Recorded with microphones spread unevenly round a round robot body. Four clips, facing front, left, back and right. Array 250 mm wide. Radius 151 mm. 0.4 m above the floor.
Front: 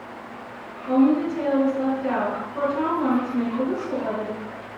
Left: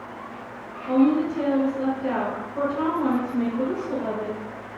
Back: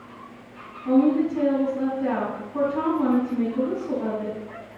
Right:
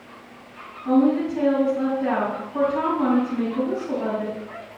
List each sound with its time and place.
0.8 s a woman speaking: 130° right, 3.5 m